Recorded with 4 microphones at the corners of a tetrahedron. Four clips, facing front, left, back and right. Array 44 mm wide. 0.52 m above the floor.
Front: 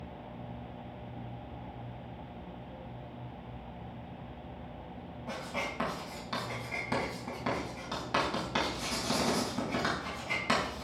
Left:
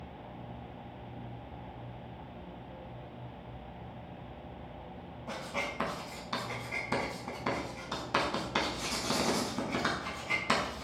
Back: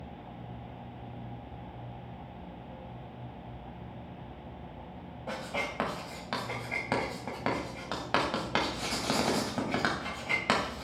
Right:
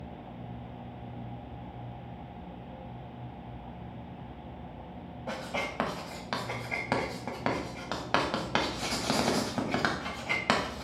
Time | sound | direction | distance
5.3 | writing | 120° right | 3 m